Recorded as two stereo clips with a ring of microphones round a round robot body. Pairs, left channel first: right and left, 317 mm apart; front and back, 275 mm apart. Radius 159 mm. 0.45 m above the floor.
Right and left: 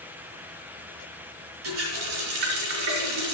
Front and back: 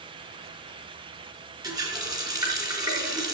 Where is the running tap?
105° left, 3.5 m.